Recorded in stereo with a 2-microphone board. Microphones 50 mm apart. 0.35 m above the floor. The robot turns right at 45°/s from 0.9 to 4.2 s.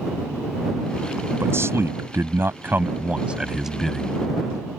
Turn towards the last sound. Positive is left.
turn(degrees=15)